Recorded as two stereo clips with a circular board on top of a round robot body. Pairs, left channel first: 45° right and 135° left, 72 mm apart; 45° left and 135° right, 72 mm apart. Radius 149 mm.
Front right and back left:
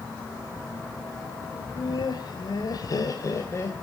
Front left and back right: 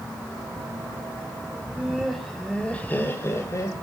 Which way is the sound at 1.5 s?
60° right.